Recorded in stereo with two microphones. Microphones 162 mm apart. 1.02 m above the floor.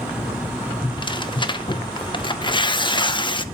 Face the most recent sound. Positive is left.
turn(degrees=30)  # may be behind; listen again after turning